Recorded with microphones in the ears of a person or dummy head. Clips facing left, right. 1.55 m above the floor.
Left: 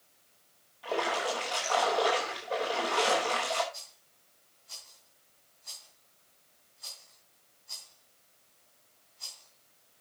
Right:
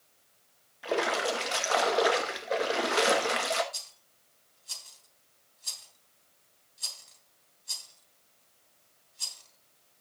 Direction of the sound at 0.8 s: 25° right (ahead or behind).